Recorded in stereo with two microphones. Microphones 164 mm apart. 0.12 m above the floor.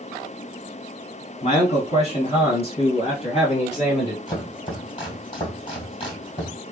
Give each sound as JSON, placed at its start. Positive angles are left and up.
{"t": 1.4, "sound": "a man speaking", "side_deg": 45, "distance_m": 1.5}
{"t": 4.3, "sound": "chopping", "side_deg": 35, "distance_m": 2.5}